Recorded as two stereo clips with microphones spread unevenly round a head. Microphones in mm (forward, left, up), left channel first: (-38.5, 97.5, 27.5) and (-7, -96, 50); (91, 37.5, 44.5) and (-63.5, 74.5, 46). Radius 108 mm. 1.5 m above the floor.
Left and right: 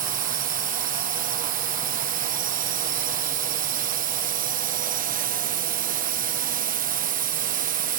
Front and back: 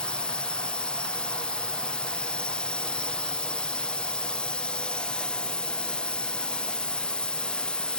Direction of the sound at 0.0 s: 95° right.